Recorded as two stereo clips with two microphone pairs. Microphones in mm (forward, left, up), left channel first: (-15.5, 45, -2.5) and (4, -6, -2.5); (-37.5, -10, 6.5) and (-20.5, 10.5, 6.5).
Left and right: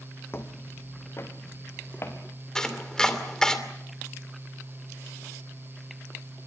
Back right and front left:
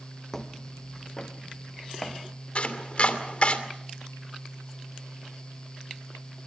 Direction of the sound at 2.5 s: 170° right.